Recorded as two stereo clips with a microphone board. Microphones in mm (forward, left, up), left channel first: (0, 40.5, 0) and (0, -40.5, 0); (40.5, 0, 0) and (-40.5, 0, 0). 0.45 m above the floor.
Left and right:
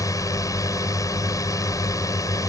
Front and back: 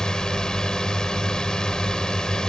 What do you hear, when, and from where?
0.0 s a drone: 80° left